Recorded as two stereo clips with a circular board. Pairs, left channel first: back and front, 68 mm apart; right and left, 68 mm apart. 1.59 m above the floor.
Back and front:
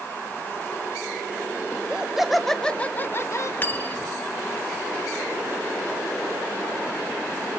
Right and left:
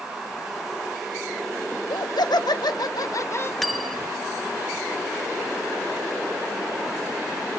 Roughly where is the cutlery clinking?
Behind.